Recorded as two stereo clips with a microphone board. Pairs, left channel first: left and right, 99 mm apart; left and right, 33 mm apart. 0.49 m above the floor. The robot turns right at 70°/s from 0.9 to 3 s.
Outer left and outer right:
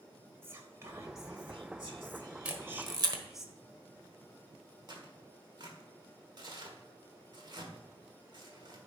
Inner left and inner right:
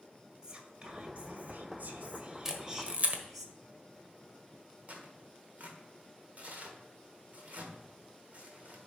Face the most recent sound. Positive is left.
turn(degrees=-50)  # may be behind; listen again after turning